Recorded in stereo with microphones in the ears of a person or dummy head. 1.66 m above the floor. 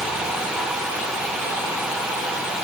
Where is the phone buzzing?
I don't hear a phone buzzing.